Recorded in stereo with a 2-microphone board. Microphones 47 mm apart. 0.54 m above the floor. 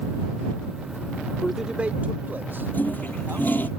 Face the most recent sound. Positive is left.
turn(degrees=45)  # may be behind; listen again after turning